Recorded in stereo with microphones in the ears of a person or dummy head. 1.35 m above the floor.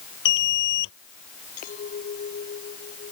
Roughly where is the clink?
Left.